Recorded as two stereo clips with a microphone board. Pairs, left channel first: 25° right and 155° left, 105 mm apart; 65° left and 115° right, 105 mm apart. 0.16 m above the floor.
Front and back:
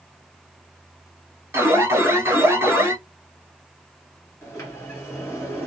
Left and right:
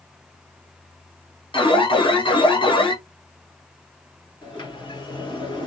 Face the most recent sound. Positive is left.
turn(degrees=40)